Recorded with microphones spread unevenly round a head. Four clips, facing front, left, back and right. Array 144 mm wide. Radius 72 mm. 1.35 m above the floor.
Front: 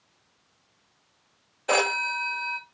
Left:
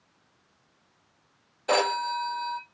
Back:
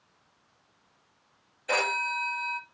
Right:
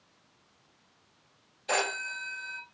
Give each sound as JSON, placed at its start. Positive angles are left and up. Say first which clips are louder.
{"t": 1.7, "sound": "a phone ringing", "louder": "left 7 dB, front 4 dB", "azimuth_deg": 45, "distance_m": 1.8}